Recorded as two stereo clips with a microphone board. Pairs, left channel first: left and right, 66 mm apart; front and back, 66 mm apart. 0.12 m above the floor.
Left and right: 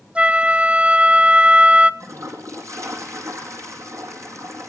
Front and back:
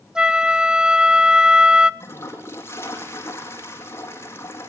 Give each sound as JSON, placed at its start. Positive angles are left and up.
{"t": 0.1, "sound": "a flute", "azimuth_deg": -120, "distance_m": 0.6}
{"t": 2.0, "sound": "a toilet flushing", "azimuth_deg": -50, "distance_m": 4.0}